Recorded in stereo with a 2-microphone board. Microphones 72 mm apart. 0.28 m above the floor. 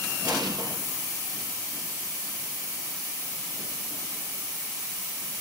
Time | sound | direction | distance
0.2 | an explosion | 60° right (ahead or behind) | 4 m